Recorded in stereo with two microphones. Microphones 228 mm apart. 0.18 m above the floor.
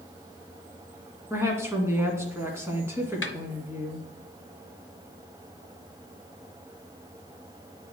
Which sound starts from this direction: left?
A snare drum, at 3.2 s.